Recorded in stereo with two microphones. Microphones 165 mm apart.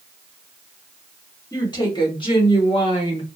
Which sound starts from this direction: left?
A woman speaking, at 1.5 s.